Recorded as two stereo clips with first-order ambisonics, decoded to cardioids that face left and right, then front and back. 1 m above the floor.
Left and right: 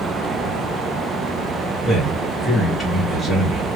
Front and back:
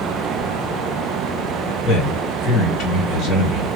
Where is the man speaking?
5° left, 1.9 m.